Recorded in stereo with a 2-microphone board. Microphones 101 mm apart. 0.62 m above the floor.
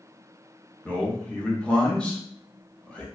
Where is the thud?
No thud in this recording.